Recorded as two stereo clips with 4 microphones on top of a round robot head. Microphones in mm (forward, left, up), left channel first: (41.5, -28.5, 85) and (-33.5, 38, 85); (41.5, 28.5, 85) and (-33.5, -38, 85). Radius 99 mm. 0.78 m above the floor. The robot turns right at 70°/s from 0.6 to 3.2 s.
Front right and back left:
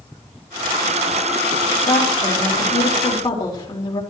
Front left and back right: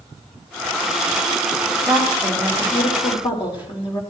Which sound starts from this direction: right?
A woman speaking, at 1.9 s.